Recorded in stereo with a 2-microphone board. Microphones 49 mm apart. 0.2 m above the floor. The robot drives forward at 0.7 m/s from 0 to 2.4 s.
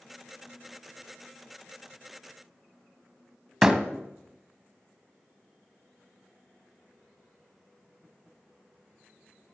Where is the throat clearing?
No throat clearing in this recording.